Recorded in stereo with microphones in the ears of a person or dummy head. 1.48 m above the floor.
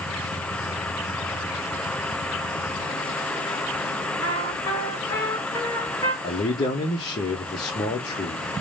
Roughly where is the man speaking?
Left.